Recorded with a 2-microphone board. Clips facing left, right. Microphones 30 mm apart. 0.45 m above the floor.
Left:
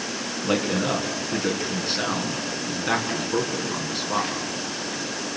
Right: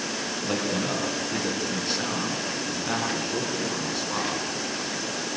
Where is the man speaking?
20° left (ahead or behind), 6 m.